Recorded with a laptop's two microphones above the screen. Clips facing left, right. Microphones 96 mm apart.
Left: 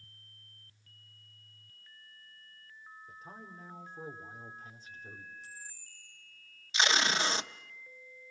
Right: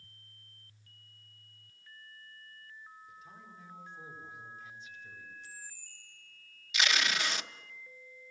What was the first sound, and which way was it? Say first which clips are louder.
A man speaking: left 3 dB; 45° left (ahead or behind).